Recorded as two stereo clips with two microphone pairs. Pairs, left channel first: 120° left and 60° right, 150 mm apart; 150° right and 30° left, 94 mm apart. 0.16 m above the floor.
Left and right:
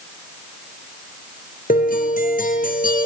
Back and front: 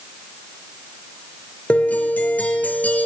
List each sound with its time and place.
1.7 s a guitar: 140° left, 3.5 m